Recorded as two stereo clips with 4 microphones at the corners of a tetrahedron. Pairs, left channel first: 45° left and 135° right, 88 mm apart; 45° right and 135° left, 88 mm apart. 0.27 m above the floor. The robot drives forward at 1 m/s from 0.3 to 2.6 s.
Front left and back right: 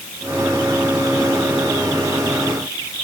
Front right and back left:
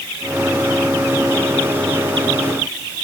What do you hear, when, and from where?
Only background noise.